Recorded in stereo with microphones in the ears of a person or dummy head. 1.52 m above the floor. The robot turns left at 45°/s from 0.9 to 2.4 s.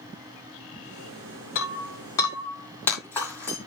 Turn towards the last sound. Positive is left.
turn(degrees=10)  # may be behind; listen again after turning